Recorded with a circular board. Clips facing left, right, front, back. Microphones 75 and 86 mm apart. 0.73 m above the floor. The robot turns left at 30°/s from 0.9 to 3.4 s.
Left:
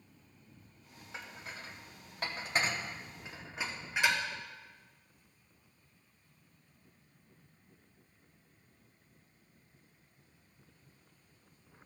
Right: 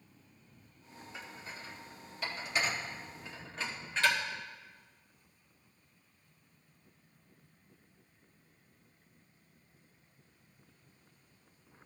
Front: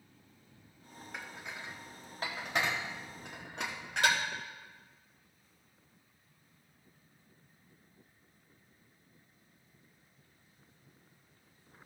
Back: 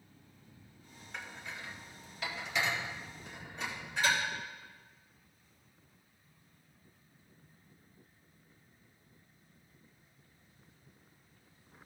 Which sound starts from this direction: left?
Dishes clattering, at 1.1 s.